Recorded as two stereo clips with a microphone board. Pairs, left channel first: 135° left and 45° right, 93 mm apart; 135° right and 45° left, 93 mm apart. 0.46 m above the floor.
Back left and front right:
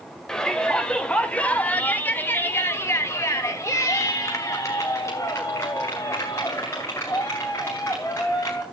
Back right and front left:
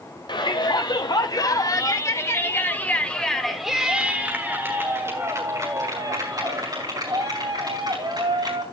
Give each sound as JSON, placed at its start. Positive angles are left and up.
{"t": 0.3, "sound": "a shout", "azimuth_deg": -145, "distance_m": 2.0}